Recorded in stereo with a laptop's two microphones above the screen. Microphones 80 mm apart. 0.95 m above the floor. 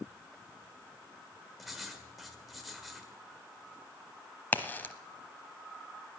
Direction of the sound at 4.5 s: 25° left (ahead or behind).